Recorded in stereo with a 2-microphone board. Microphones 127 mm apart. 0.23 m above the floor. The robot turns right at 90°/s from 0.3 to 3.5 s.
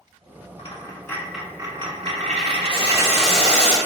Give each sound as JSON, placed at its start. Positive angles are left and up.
{"t": 0.6, "sound": "a dropped coin", "azimuth_deg": 115, "distance_m": 0.7}
{"t": 2.7, "sound": "boiling", "azimuth_deg": 45, "distance_m": 1.6}